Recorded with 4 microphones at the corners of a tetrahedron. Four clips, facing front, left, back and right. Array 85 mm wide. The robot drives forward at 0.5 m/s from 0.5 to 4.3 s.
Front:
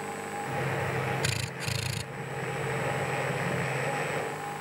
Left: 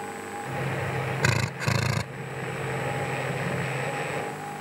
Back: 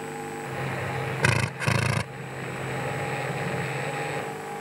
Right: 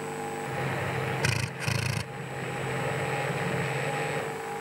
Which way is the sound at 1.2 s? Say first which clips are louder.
Left 4 dB, back 9 dB; 150° left.